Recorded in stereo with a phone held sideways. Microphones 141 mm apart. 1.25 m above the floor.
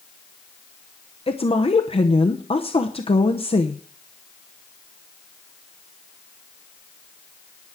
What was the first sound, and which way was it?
A woman speaking, 45° left (ahead or behind).